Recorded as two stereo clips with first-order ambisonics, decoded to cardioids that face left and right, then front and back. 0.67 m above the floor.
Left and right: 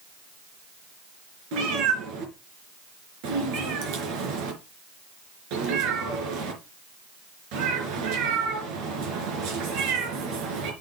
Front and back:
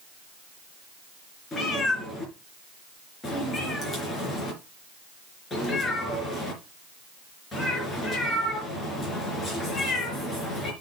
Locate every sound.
1.5 s a cat meowing: 75° right, 4 m